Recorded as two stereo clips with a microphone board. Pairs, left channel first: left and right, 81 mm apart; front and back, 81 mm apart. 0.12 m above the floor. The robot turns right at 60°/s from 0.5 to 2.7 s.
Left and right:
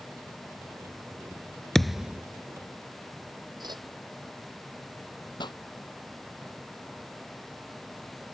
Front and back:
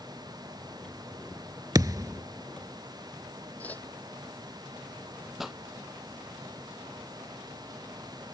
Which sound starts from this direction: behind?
A thud, at 1.8 s.